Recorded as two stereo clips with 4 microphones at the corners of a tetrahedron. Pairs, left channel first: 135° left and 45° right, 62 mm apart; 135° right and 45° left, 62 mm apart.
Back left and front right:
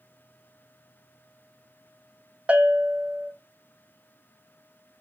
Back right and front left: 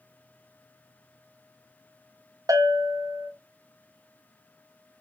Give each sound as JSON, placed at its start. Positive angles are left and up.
{"t": 2.5, "sound": "a bell", "azimuth_deg": 30, "distance_m": 0.6}